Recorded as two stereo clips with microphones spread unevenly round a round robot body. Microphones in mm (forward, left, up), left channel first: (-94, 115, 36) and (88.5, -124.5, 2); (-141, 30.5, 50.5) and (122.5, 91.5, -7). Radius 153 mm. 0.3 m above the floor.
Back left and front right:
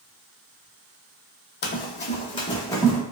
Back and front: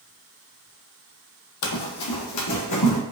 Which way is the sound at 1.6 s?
175° left.